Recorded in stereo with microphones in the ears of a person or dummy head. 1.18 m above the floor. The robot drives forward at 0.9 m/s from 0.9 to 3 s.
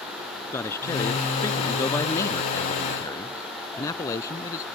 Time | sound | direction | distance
0.5 | a man speaking | 20° left (ahead or behind) | ?